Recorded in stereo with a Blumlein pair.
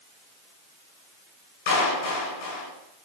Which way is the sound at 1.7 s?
55° left.